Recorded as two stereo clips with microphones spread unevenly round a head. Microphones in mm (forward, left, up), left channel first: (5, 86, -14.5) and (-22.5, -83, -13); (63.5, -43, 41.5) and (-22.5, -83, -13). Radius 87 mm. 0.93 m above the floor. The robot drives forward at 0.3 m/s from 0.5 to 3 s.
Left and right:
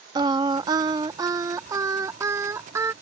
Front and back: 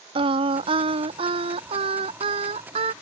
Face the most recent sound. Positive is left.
turn(degrees=-175)